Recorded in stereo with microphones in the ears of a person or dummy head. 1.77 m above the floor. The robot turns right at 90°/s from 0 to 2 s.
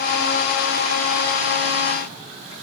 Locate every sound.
Only background noise.